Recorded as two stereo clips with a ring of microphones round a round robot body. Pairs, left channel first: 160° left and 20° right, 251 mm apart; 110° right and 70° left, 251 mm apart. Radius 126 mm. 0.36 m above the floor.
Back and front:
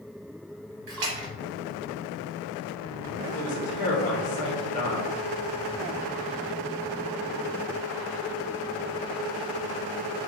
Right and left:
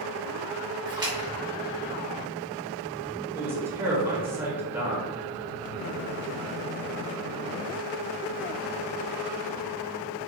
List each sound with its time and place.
0.9 s a splash: 5° right, 1.0 m
3.4 s a man speaking: 140° left, 0.9 m